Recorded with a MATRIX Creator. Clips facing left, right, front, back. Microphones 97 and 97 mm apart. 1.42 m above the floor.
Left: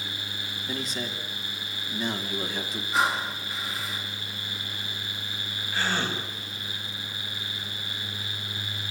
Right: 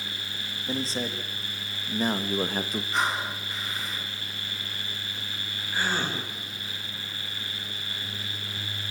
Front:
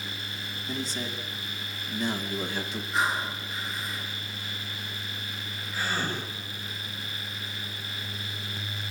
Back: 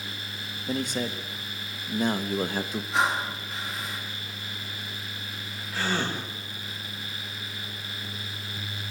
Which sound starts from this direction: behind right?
A man speaking, at 0.7 s.